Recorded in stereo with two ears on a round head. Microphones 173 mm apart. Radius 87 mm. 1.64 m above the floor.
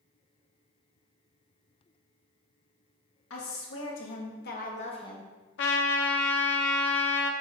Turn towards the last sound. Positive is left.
turn(degrees=65)  # may be behind; listen again after turning